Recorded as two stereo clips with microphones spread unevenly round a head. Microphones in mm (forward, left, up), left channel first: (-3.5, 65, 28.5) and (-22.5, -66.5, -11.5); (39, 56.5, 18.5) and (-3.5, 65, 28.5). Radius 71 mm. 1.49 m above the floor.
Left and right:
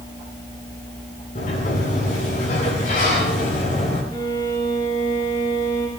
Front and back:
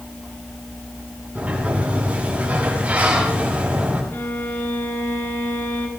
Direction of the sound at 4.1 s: 15° left.